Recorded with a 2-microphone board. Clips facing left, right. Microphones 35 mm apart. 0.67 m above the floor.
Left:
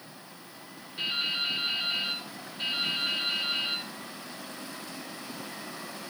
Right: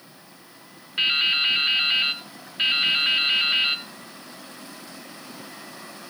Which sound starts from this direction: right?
Dripping, at 1.0 s.